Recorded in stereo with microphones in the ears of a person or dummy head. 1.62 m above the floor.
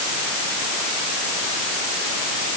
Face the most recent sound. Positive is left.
No sound to turn to.